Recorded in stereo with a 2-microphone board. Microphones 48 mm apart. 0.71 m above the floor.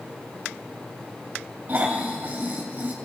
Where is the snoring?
45° right (ahead or behind), 2.5 m.